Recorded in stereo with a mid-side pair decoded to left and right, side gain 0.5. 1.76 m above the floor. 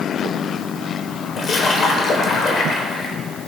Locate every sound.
1.4 s a splash: 50° left, 1.3 m